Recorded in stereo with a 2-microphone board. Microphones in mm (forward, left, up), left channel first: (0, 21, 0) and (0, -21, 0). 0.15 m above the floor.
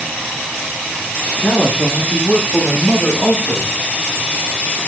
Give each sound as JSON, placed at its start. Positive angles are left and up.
{"t": 1.4, "sound": "a man speaking", "side_deg": 50, "distance_m": 5.5}